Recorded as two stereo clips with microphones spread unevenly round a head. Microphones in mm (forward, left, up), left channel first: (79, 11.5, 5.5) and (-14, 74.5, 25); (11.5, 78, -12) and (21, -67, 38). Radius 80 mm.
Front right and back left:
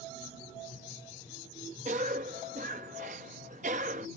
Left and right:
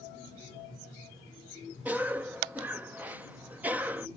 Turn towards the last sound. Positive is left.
turn(degrees=-170)